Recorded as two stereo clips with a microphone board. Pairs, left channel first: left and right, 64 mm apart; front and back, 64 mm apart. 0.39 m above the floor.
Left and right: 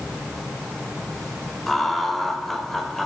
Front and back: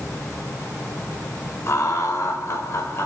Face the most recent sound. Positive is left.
turn(degrees=5)